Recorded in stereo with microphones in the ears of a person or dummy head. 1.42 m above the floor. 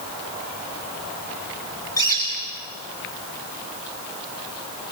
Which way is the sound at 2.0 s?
15° left (ahead or behind).